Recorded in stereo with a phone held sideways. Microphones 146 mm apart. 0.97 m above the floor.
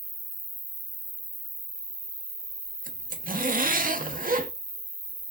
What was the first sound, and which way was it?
An insect, 55° left (ahead or behind).